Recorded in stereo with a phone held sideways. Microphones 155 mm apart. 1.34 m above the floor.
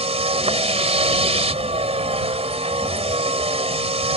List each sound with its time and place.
0.0 s a vehicle: 45° right (ahead or behind)